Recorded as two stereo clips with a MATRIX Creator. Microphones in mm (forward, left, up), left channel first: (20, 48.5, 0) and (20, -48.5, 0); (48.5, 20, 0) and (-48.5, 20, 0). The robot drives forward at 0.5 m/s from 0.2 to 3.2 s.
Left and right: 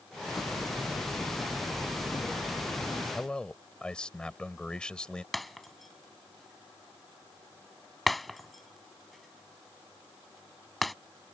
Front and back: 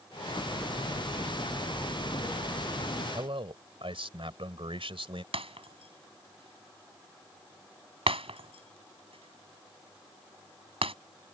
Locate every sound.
0.4 s hammering: 35° left; by 3.0 s 40° left
3.1 s a man speaking: 170° left
5.3 s breaking glass: straight behind